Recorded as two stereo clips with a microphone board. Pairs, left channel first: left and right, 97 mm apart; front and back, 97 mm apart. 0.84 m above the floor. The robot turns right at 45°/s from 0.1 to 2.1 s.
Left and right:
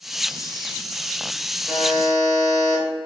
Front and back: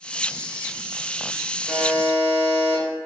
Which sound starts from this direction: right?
A buzzer, at 1.7 s.